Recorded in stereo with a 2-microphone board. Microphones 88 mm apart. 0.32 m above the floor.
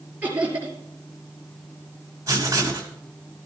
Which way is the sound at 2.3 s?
35° right (ahead or behind).